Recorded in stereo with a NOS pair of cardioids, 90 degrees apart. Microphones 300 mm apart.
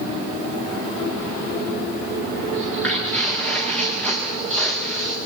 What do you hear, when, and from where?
2.5 s footsteps: 5° left, 7.5 m